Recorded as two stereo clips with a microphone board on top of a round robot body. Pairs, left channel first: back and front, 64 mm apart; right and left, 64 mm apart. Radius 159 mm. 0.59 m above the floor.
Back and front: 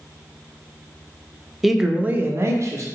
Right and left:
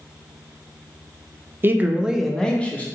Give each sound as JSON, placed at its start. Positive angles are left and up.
{"t": 1.6, "sound": "a man speaking", "azimuth_deg": 90, "distance_m": 0.7}